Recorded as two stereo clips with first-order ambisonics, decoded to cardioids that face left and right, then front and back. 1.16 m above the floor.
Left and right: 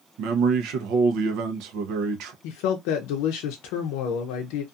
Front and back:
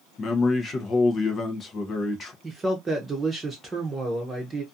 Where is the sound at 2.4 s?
105° left, 0.5 m.